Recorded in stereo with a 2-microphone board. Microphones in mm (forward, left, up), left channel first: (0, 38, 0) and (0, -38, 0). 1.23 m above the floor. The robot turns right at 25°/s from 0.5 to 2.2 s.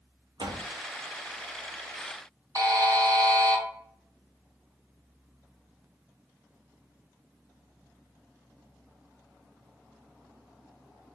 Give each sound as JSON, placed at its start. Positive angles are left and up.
{"t": 0.4, "sound": "a door slam", "side_deg": -75, "distance_m": 0.7}
{"t": 2.5, "sound": "a buzzer", "side_deg": -55, "distance_m": 1.4}